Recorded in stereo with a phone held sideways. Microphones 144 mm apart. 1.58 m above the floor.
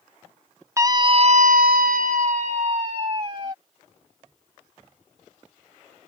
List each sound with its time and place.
0.8 s a scream: 20° right (ahead or behind); by 3.5 s 35° right (ahead or behind)